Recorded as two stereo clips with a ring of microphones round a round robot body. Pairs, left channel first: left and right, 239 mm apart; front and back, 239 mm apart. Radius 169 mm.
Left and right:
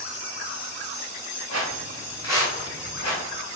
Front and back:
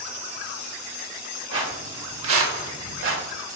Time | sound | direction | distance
1.5 | footsteps | 130° right | 1.1 m